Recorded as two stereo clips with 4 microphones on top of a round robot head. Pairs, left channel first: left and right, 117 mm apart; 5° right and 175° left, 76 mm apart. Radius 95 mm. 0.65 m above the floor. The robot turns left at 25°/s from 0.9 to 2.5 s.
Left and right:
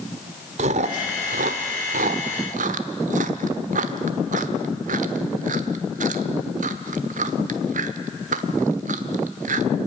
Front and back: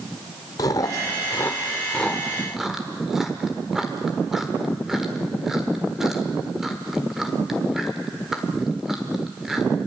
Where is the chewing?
60° right, 0.9 m; by 9.7 s 100° right, 0.9 m.